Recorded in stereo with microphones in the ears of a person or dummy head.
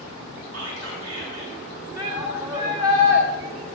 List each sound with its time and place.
0.5 s whispering: 85° right, 5.5 m
2.0 s a shout: 20° right (ahead or behind), 2.5 m